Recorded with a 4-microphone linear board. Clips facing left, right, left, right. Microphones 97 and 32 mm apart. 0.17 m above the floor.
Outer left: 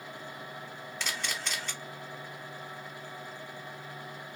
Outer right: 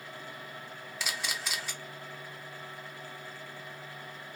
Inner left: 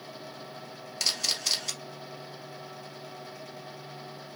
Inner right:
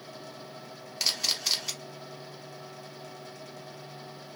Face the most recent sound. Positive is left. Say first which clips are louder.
# even, even
turn(degrees=-10)  # may be behind; listen again after turning